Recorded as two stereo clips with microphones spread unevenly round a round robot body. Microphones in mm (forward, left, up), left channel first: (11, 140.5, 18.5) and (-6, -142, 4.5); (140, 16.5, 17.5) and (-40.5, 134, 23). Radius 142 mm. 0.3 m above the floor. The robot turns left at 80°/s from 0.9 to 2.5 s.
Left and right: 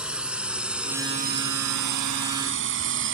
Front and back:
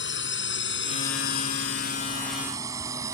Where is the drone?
5° right; by 3.1 s 135° right.